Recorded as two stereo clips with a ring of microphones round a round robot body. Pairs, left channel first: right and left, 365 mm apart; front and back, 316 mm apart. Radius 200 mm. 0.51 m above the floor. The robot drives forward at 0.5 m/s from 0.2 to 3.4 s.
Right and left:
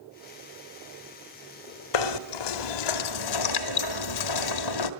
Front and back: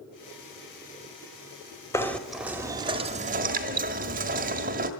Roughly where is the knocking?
Right.